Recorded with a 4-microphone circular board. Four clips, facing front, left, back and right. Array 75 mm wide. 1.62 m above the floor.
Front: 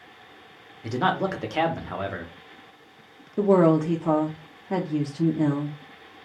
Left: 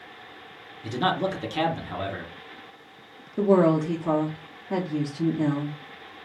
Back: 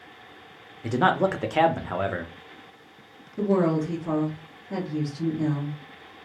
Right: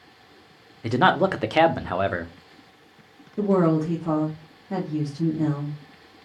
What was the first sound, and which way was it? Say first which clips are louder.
A man speaking: right 6 dB, back 3 dB; 100° right.